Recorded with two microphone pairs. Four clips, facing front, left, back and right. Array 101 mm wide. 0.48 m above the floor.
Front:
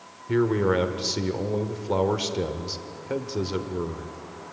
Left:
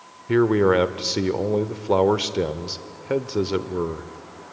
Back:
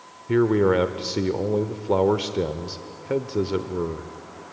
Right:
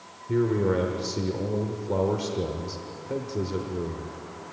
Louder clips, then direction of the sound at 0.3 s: Left 6 dB, back 3 dB; 100° left.